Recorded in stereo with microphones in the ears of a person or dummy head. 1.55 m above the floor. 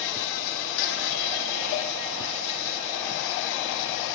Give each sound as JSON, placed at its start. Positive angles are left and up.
{"t": 0.0, "sound": "an insect", "side_deg": 70, "distance_m": 0.7}